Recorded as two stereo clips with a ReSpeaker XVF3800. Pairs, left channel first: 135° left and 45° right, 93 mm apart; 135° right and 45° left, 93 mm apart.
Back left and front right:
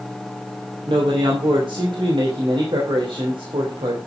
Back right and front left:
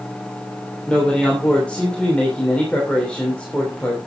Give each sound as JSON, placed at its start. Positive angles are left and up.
{"t": 0.9, "sound": "a man speaking", "azimuth_deg": -60, "distance_m": 3.0}